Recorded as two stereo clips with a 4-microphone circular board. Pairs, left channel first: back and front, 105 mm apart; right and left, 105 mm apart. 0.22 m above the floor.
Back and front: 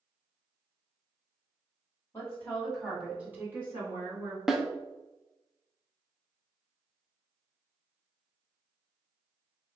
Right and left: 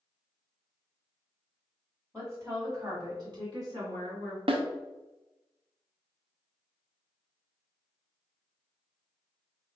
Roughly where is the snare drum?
Left.